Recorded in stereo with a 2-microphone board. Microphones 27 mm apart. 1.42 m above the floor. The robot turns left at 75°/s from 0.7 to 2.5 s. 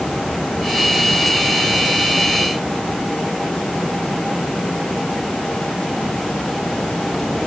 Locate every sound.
Only background noise.